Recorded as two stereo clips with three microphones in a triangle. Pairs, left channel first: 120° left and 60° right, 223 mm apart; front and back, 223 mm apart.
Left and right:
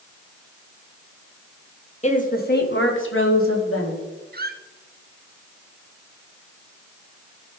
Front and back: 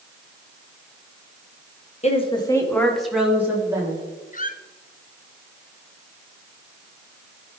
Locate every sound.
2.0 s a woman speaking: 60° left, 1.3 m; by 4.0 s 105° left, 2.5 m
4.3 s a squeak: 40° right, 0.6 m